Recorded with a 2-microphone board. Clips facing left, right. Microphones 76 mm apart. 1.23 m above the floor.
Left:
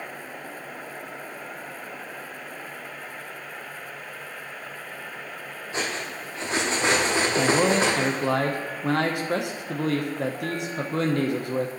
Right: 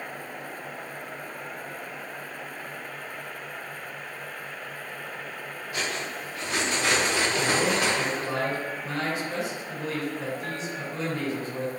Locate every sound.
5.7 s cutlery clinking: 30° left (ahead or behind), 1.4 m
7.4 s a man speaking: 65° left (ahead or behind), 0.8 m